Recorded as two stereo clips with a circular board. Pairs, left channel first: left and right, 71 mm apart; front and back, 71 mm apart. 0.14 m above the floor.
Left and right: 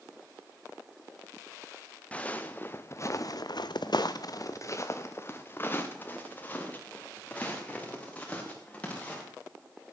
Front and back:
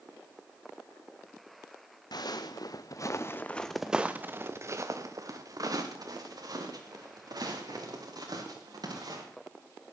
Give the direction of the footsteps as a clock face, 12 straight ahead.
11 o'clock.